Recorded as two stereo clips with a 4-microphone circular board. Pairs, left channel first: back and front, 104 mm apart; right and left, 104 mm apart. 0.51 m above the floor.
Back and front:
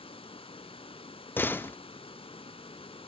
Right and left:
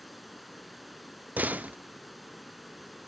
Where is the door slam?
145° left, 0.5 m.